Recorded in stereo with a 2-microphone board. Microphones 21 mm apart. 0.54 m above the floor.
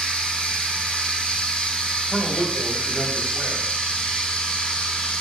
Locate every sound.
0.0 s running water: 85° left, 3 m
2.1 s a man speaking: 70° left (ahead or behind), 2.5 m